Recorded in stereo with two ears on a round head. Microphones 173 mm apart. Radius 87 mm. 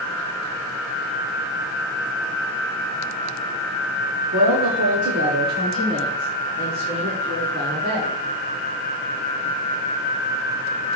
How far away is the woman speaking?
About 1.3 m.